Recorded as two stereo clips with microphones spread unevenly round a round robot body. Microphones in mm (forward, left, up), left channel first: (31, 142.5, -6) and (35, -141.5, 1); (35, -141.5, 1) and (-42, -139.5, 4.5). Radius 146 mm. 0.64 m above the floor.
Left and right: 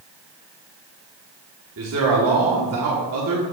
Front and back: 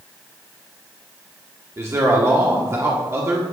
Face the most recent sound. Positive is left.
turn(degrees=-130)